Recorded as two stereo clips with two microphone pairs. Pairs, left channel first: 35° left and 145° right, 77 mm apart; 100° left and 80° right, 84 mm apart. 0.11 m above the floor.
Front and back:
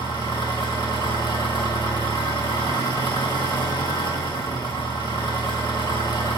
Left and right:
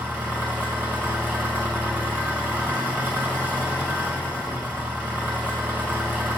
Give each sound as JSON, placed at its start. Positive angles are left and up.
{"t": 0.0, "sound": "an engine running", "azimuth_deg": 30, "distance_m": 2.0}